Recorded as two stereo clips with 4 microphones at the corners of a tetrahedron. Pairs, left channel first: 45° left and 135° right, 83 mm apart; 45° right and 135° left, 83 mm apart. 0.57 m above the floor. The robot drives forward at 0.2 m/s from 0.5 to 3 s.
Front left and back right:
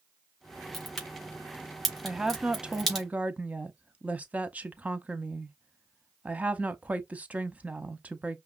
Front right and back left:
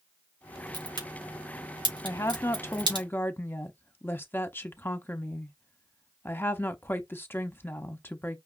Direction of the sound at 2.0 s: 55° right.